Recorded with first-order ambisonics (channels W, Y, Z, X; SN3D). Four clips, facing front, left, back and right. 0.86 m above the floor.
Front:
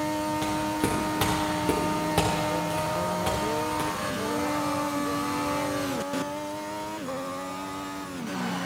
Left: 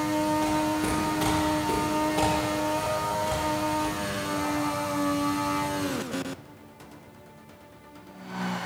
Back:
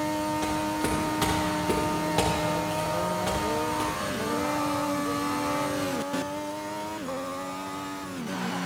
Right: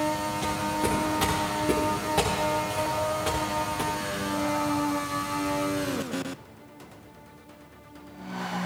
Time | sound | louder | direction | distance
0.4 | footsteps | left 2 dB, front 1 dB | 5° right | 6.5 m